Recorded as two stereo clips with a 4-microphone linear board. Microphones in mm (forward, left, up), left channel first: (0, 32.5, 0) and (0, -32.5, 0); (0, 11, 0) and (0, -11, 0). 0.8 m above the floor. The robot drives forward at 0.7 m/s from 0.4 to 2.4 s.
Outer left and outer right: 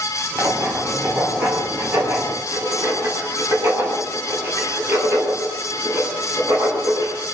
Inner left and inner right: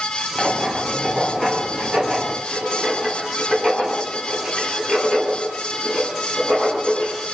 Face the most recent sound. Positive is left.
turn(degrees=-30)  # may be behind; listen again after turning